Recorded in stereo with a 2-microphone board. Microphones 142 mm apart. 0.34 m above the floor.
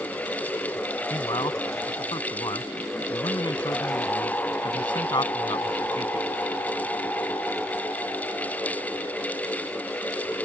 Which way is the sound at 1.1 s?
35° left (ahead or behind).